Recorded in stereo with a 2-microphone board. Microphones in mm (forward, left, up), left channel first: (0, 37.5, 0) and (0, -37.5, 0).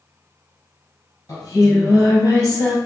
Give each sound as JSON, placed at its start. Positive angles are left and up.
{"t": 1.3, "sound": "singing", "side_deg": 50, "distance_m": 1.5}